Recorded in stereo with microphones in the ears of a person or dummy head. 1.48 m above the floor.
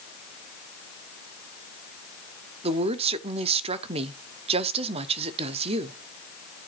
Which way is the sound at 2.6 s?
35° right (ahead or behind).